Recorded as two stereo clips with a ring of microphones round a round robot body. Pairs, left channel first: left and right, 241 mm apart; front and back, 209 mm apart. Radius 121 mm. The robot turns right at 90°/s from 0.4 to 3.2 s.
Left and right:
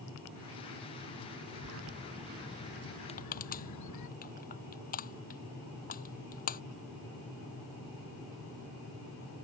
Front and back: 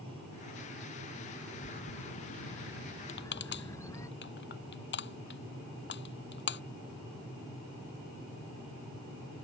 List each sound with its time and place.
1.5 s a bird: 75° right; by 4.1 s 75° left
3.1 s crushing: 25° left; by 6.6 s 35° left